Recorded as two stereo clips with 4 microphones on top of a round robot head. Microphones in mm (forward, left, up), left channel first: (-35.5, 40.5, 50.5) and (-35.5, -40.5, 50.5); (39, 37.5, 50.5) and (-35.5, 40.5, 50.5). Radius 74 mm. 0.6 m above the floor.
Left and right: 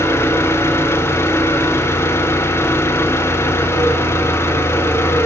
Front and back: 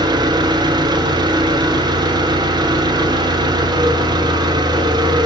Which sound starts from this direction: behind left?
An engine running, at 0.0 s.